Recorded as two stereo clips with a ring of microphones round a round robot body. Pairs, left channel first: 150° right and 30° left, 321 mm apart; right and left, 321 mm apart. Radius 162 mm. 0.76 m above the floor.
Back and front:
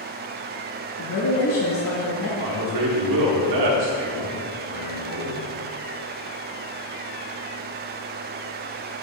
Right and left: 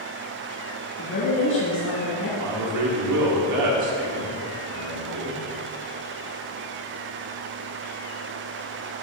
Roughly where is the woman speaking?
Behind right.